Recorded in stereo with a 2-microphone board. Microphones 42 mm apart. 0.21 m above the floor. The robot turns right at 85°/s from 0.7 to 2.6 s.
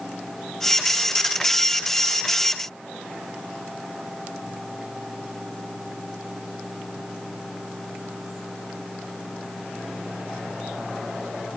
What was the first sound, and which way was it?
Only background noise.